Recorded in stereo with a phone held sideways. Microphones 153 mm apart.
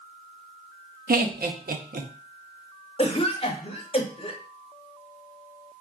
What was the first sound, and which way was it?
Laughter, 75° right (ahead or behind).